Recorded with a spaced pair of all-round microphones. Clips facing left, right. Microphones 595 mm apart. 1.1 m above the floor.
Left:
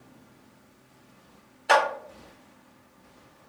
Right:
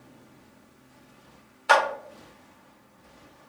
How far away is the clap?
About 0.6 m.